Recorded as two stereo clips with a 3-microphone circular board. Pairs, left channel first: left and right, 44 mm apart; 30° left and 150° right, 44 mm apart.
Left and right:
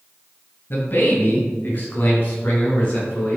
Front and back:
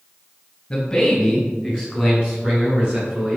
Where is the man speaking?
100° left, 1.9 m; by 3.4 s 150° left, 4 m.